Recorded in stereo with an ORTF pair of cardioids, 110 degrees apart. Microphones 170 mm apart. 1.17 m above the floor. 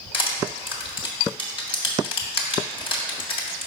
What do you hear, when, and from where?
0.1 s crushing: 30° left, 1.7 m